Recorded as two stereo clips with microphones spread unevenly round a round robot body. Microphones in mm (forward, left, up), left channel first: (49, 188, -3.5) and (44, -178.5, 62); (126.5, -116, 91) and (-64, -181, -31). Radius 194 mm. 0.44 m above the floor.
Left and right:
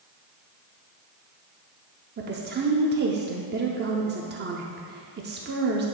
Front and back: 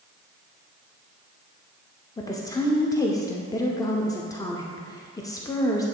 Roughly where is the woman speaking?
Behind right.